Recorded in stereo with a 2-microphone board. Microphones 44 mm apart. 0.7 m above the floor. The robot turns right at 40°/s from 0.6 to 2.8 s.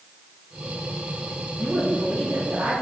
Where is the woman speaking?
145° right, 5.5 m; by 2.7 s 100° right, 5.5 m.